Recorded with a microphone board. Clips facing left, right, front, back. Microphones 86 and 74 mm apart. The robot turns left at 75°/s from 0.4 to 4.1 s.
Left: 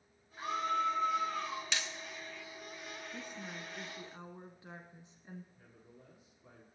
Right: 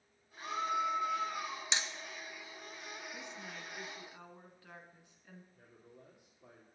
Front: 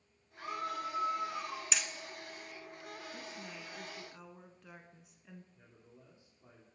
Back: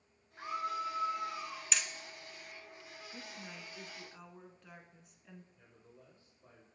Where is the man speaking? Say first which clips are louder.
Right 1 dB, even; 70° right, 4 m.